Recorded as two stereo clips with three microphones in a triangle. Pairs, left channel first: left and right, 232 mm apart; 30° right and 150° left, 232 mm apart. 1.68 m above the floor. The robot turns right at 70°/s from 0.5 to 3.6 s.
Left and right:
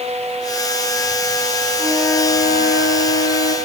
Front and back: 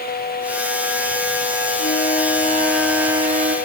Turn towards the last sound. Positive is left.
turn(degrees=110)